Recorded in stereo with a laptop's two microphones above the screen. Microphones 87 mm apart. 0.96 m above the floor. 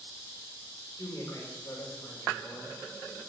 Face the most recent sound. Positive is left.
turn(degrees=35)  # may be behind; listen again after turning